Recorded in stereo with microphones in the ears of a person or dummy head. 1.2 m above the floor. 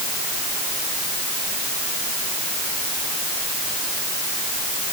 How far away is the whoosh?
I don't hear a whoosh.